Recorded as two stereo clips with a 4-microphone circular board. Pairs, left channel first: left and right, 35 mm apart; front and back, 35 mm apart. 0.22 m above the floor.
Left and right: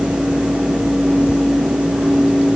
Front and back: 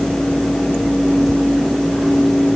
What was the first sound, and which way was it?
Only background noise.